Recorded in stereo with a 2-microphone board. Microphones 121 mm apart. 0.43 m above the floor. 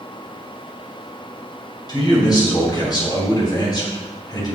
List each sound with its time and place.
1.9 s a man speaking: 35° left (ahead or behind), 2.5 m